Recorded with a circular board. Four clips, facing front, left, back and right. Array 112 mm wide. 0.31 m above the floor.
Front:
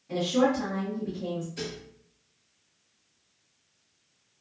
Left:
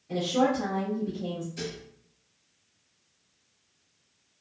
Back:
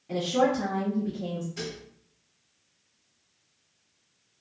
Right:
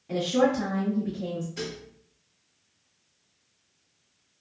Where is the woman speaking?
125° right, 1.3 m.